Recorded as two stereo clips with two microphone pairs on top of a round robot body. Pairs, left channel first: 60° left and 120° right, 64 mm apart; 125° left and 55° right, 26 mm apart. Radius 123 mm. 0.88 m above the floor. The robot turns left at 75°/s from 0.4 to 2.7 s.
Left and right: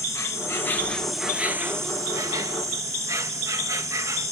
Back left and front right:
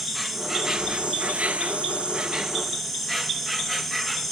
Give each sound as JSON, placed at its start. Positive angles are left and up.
{"t": 0.0, "sound": "an insect", "azimuth_deg": 25, "distance_m": 1.3}